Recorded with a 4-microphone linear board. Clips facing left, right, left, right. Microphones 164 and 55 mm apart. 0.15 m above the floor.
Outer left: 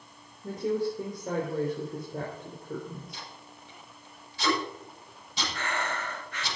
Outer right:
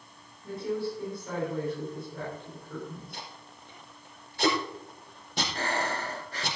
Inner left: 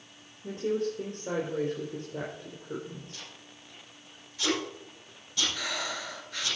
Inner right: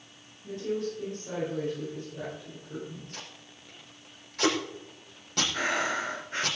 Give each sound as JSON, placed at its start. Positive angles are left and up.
{"t": 0.4, "sound": "a woman speaking", "side_deg": 45, "distance_m": 4.0}
{"t": 3.1, "sound": "tape being pulled", "side_deg": -55, "distance_m": 4.5}
{"t": 5.5, "sound": "breathing", "side_deg": -35, "distance_m": 0.8}